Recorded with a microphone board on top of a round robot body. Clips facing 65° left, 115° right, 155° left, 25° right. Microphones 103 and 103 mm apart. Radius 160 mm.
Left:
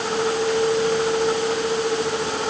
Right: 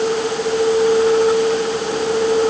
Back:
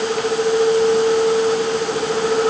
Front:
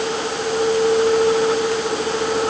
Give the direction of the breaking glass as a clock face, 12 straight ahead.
I don't hear breaking glass.